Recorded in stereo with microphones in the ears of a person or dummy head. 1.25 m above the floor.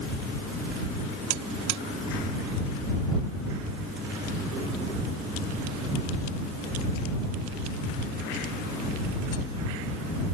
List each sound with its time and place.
1.3 s a buzzer: 65° right (ahead or behind)